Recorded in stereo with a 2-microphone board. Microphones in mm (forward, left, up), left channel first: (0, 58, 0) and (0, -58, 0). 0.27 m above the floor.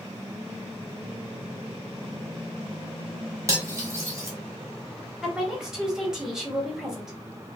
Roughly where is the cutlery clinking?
Right.